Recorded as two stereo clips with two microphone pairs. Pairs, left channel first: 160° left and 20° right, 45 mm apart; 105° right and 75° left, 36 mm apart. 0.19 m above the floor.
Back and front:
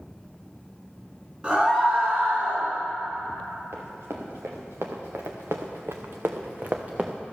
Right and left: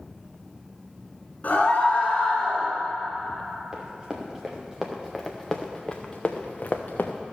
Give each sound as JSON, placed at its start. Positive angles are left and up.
{"t": 1.4, "sound": "a scream", "azimuth_deg": -80, "distance_m": 2.5}
{"t": 3.7, "sound": "running footsteps", "azimuth_deg": 0, "distance_m": 2.5}